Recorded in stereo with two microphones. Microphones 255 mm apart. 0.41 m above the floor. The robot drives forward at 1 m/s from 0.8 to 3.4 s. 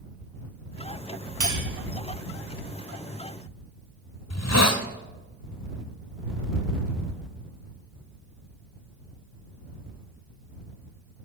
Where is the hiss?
80° left, 0.7 m.